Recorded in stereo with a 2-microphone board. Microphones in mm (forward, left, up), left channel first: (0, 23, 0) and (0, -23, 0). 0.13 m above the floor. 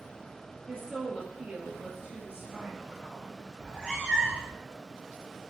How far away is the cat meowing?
About 2.5 m.